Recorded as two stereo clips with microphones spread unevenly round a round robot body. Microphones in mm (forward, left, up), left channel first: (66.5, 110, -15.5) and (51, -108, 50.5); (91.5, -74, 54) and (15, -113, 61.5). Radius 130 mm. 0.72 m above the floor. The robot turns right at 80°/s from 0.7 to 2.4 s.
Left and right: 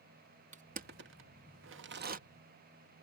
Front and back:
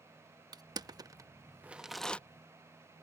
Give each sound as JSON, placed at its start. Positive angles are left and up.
{"t": 0.5, "sound": "crushing", "azimuth_deg": -160}